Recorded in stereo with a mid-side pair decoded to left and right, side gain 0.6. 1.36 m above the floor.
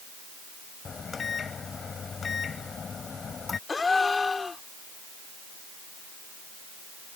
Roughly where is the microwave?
Ahead left.